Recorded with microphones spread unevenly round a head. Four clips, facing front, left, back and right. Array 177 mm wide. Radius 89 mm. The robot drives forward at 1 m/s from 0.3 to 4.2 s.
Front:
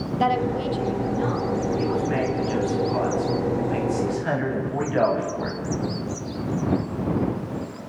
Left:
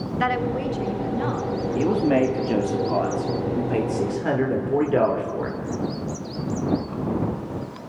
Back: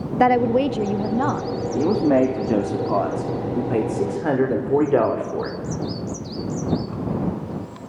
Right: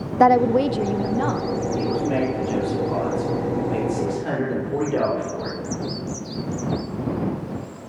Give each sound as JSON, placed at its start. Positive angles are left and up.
{"t": 0.2, "sound": "a woman speaking", "azimuth_deg": -125, "distance_m": 0.8}
{"t": 1.8, "sound": "a man speaking", "azimuth_deg": 155, "distance_m": 3.0}